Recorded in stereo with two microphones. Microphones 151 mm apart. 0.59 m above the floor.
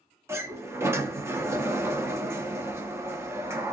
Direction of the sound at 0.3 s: 15° right (ahead or behind).